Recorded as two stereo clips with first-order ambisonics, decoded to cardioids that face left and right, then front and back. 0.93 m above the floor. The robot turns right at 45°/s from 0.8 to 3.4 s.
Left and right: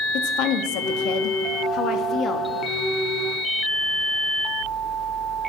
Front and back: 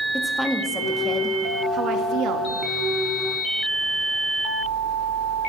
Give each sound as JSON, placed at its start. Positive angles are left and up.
{"t": 0.1, "sound": "a woman speaking", "azimuth_deg": 85, "distance_m": 1.7}